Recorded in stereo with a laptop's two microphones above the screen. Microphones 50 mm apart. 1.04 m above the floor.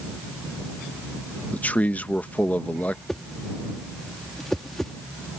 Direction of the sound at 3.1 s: 5° left (ahead or behind).